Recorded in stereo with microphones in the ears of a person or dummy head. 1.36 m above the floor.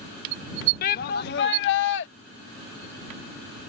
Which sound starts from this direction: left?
A shout, at 0.8 s.